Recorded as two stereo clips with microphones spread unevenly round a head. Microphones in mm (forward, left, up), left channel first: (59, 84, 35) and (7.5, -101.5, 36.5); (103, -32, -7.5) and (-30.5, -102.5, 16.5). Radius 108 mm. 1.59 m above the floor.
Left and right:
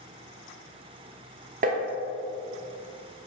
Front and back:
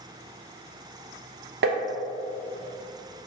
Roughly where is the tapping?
Behind.